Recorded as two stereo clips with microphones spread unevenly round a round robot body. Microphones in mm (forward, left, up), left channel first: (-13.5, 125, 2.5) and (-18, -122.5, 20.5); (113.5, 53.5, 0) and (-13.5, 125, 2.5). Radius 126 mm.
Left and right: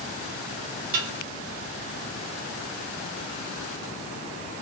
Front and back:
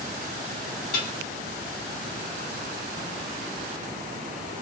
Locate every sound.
0.9 s dishes clattering: 45° right, 2.5 m